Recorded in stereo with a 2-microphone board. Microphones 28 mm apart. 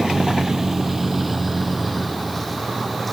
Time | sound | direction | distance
0.0 | a vehicle | 25° right (ahead or behind) | ?